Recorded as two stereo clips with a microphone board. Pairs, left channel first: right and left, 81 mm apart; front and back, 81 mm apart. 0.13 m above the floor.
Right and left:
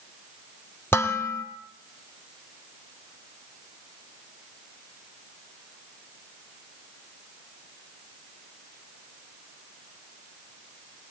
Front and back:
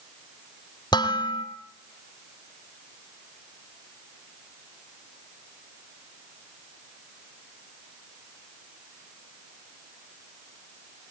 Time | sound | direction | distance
0.9 | dishes clattering | 30° right | 2.5 m